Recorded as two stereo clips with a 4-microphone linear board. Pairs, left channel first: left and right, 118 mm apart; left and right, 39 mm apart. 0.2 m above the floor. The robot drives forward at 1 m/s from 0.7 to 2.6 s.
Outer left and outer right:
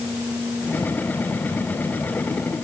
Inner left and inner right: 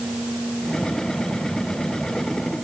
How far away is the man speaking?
No man speaking in this recording.